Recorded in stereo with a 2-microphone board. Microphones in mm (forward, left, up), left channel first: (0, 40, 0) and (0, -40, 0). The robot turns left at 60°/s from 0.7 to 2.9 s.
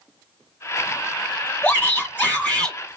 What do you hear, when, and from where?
1.6 s a shout: 20° left (ahead or behind), 1.6 m; by 2.8 s 10° left (ahead or behind), 1.6 m